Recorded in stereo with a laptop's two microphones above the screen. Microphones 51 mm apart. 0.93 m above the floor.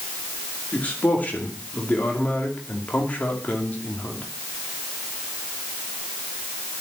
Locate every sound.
0.7 s a man speaking: 30° left (ahead or behind), 2.5 m